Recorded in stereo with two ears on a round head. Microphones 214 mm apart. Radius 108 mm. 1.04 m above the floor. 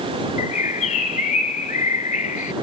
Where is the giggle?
I don't hear a giggle.